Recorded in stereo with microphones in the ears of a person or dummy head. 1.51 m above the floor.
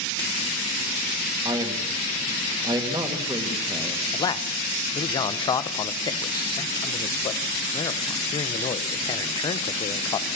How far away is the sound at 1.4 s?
About 2.5 m.